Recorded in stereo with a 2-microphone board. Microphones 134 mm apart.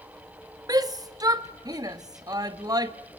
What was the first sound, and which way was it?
A shout, 25° right (ahead or behind).